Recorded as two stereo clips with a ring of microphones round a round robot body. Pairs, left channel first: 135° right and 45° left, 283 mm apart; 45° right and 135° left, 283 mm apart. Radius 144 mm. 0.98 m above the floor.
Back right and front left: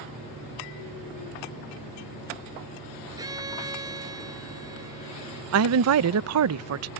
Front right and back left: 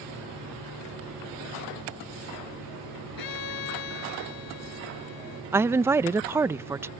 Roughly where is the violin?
Ahead right.